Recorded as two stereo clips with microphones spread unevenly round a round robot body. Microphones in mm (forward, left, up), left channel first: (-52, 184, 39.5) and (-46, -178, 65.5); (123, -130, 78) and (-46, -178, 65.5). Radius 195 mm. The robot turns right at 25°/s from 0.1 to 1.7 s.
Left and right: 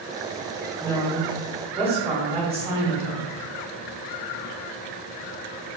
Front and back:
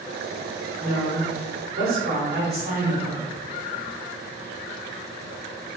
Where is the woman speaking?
170° left, 1.6 m; by 3.3 s 165° right, 1.6 m.